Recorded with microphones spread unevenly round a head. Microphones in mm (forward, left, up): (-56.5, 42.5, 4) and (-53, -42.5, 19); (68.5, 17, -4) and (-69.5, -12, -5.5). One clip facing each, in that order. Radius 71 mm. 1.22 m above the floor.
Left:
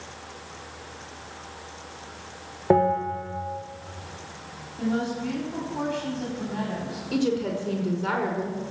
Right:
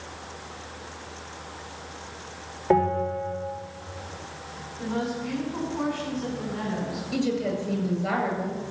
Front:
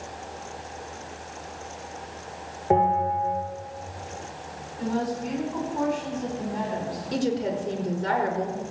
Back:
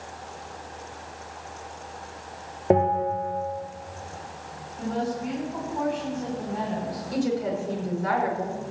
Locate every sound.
2.7 s a bell: 155° left, 4.5 m
4.8 s a woman speaking: 100° left, 8.5 m
7.1 s a woman speaking: 75° left, 5 m